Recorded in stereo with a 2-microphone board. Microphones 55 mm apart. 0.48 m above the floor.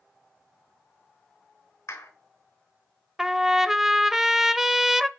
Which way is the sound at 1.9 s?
75° left (ahead or behind).